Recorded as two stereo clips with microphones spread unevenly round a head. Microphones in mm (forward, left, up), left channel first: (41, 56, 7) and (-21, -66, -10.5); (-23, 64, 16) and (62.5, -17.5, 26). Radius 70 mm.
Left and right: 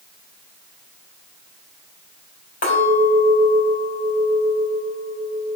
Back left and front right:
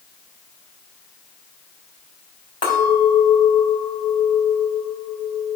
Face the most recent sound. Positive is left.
turn(degrees=85)